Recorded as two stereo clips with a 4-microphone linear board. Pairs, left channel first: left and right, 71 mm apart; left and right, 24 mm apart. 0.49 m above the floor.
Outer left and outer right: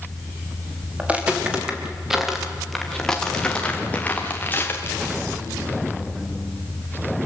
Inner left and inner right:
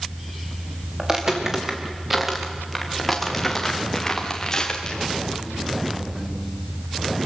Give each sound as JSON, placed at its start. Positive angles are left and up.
{"t": 1.0, "sound": "footsteps", "side_deg": -20, "distance_m": 4.0}